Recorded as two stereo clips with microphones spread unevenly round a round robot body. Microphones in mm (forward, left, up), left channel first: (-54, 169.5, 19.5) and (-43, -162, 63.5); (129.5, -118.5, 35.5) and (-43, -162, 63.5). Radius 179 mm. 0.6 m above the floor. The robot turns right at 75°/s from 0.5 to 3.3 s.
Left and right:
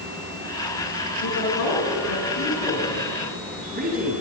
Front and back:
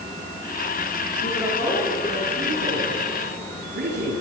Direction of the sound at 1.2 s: 50° left.